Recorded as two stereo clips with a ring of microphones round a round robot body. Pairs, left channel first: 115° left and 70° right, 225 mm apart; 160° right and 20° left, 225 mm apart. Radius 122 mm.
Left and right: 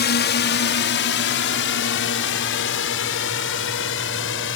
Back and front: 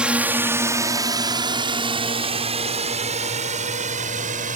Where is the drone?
105° left; by 4.6 s 80° left.